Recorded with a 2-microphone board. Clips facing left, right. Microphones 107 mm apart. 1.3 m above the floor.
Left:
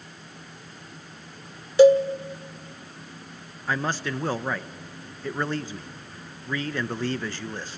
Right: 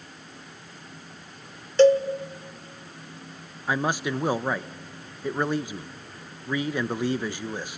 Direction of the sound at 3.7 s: 15° right (ahead or behind).